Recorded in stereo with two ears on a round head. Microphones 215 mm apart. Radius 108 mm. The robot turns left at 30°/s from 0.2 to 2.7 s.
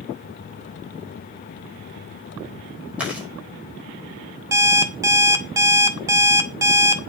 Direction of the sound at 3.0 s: 5° right (ahead or behind).